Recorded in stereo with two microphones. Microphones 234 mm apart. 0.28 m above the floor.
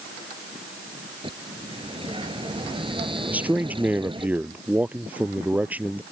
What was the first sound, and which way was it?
A bird, 20° right (ahead or behind).